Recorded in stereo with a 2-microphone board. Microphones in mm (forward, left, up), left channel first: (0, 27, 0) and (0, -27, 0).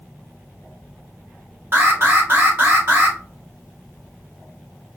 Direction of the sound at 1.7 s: 45° right (ahead or behind).